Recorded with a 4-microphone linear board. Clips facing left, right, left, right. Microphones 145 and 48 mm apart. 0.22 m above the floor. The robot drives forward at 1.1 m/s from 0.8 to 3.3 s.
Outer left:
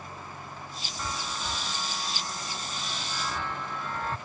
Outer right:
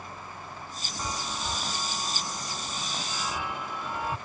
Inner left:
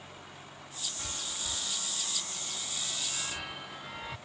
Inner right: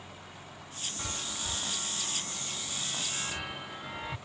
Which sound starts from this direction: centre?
A chime, at 1.0 s.